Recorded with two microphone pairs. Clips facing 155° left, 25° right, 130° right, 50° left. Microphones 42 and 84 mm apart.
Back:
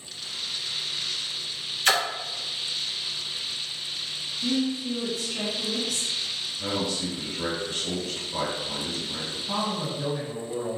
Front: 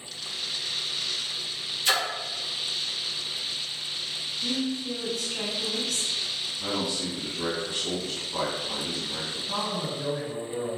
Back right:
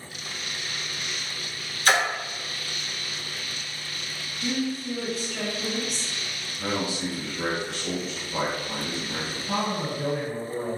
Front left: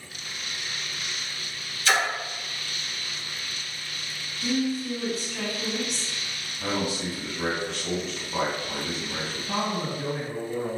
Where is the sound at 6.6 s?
175° left, 1.9 m.